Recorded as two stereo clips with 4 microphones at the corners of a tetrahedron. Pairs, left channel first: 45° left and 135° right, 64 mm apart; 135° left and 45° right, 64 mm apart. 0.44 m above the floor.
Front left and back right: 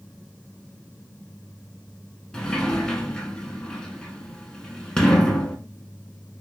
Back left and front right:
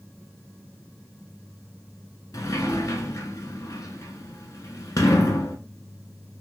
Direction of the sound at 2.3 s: 125° left.